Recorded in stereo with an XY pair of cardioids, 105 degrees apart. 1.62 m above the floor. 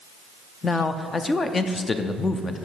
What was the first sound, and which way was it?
A man speaking, 30° left.